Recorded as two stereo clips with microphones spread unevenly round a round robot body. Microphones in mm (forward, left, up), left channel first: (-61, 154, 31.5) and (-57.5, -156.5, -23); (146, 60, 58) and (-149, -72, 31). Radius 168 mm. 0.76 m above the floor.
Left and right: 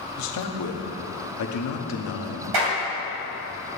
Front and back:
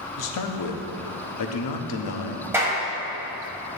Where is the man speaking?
50° left, 1.1 m.